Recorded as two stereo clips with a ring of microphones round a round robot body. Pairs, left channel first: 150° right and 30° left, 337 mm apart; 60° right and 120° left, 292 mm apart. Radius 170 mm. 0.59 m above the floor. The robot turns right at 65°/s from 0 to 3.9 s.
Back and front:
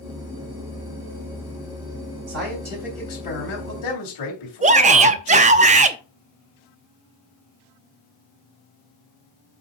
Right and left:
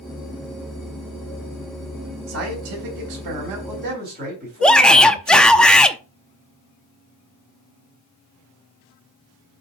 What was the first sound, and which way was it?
A man speaking, 80° left.